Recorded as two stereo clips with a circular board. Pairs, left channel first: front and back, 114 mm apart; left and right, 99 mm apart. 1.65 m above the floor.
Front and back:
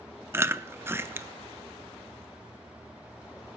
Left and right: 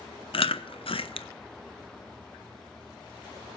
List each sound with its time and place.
0.3 s chewing: 110° left, 0.6 m